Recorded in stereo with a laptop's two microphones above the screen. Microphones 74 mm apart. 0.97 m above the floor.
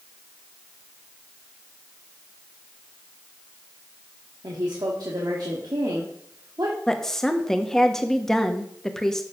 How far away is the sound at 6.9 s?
About 1.4 m.